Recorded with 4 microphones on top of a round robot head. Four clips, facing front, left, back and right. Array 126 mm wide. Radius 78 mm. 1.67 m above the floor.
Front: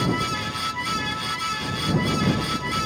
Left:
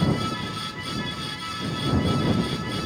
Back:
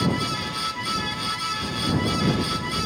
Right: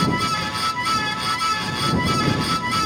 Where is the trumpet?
I don't hear a trumpet.